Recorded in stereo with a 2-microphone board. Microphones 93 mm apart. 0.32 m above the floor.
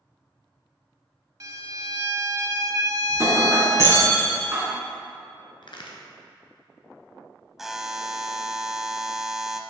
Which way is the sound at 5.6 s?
60° left (ahead or behind).